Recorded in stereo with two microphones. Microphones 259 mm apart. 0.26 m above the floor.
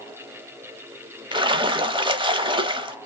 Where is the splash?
20° right (ahead or behind), 0.8 m.